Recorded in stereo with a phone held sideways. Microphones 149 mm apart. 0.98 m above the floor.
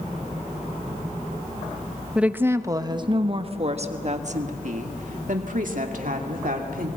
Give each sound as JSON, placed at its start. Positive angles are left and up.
{"t": 2.1, "sound": "a woman speaking", "side_deg": -5, "distance_m": 0.9}